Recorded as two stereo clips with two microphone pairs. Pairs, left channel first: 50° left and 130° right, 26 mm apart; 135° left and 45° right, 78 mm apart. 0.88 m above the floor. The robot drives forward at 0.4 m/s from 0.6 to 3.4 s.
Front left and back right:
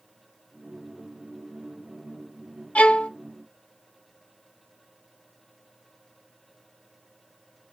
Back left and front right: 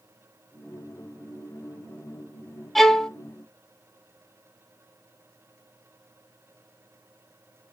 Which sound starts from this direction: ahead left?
A violin, at 2.8 s.